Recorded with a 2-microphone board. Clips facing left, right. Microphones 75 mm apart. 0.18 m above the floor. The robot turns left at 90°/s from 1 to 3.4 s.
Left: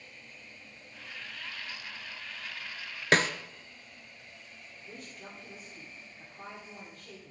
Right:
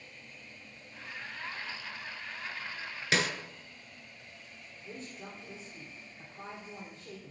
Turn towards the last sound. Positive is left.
turn(degrees=-25)  # may be behind; listen again after turning